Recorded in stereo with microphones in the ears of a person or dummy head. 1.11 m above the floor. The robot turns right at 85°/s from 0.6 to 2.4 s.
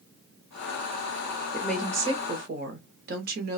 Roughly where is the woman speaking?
Behind.